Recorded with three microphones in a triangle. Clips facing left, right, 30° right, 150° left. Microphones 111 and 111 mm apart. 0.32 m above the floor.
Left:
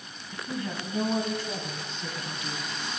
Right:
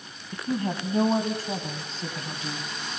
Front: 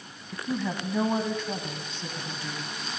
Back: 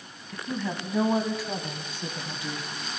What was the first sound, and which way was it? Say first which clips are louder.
A woman speaking: right 6 dB, front 1 dB; 110° right.